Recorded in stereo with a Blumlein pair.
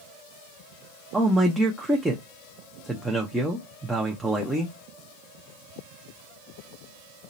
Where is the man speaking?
10° right, 0.7 m.